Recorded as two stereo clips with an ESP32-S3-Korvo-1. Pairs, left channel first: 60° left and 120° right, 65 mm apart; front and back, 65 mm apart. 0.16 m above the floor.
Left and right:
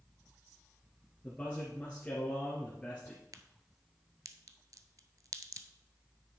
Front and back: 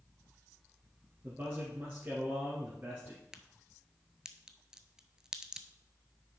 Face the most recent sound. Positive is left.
turn(degrees=-100)